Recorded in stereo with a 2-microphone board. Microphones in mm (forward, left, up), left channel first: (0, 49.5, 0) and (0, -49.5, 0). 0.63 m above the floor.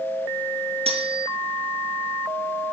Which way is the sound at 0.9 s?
85° right.